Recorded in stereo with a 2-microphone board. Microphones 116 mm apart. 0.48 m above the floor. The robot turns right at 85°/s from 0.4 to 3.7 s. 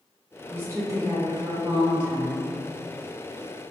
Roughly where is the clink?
No clink in this recording.